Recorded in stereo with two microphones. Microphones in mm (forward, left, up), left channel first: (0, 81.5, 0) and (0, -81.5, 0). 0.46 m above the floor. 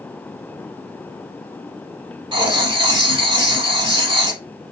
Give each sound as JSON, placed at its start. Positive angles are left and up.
{"t": 2.3, "sound": "writing", "side_deg": -30, "distance_m": 0.6}